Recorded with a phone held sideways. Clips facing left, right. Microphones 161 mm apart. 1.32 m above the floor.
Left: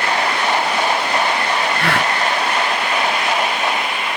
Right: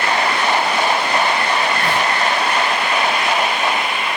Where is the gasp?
80° left.